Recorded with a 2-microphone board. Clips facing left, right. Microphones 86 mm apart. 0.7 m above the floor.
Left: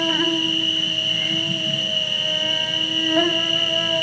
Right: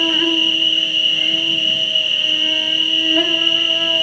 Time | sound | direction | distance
0.0 | an insect | 20° left (ahead or behind) | 1.6 m